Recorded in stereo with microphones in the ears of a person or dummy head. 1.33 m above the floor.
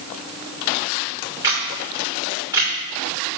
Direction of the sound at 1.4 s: 20° right (ahead or behind).